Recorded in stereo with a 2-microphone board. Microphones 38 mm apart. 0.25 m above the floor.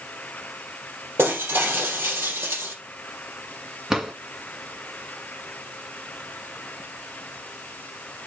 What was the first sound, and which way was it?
Breaking glass, 80° right.